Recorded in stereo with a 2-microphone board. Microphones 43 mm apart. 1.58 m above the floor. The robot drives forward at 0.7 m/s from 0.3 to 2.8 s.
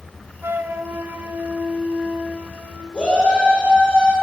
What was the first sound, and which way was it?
A flute, 65° right (ahead or behind).